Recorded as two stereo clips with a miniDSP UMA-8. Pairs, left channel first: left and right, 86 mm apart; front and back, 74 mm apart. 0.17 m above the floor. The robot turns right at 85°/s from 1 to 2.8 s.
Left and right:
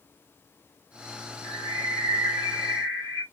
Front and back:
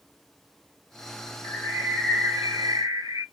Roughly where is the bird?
Ahead left.